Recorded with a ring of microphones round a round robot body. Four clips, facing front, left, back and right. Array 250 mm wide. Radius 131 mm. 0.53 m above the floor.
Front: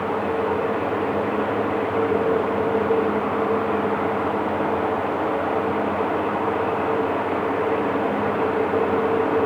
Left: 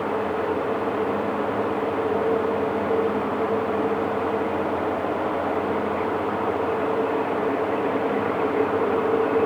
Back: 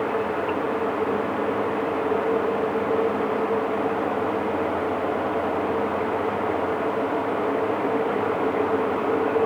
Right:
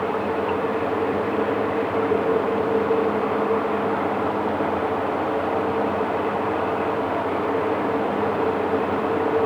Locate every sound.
Only background noise.